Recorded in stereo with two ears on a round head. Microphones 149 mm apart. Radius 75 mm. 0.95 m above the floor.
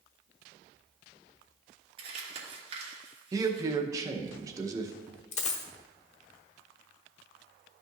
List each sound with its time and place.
2.0 s crumpling: 35° right (ahead or behind), 2.5 m
3.3 s a man speaking: 20° right (ahead or behind), 0.8 m
5.3 s a dropped coin: 45° left (ahead or behind), 0.9 m